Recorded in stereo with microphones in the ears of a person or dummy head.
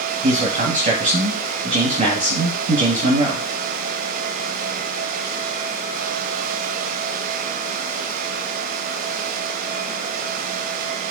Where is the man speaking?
35° right (ahead or behind), 1.6 m.